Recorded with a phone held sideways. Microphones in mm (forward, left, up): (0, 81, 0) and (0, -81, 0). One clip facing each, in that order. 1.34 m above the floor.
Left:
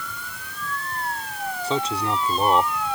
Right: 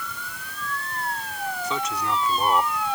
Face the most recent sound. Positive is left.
turn(degrees=30)  # may be behind; listen again after turning